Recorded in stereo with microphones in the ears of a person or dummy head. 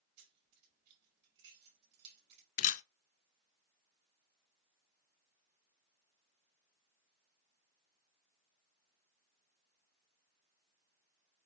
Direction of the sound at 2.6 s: 40° left (ahead or behind).